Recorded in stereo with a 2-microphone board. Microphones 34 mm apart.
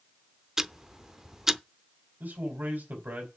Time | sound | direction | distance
0.6 | ticking | 20° right (ahead or behind) | 0.5 m
2.2 | a man speaking | 80° right | 4 m